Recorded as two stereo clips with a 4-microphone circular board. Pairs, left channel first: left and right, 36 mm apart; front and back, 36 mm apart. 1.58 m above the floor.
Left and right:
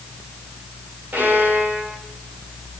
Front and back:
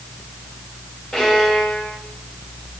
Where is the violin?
85° right, 6 m.